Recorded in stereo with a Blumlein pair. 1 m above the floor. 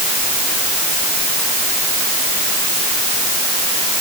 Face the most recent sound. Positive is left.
No sound to turn to.